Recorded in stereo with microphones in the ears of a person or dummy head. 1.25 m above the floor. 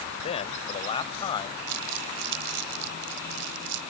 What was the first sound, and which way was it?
A man speaking, 30° left (ahead or behind).